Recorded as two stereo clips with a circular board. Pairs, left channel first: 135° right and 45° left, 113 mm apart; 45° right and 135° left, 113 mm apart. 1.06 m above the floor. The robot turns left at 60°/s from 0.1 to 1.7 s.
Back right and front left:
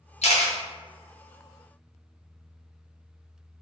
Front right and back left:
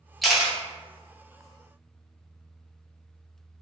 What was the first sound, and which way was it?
A camera shutter, 135° right.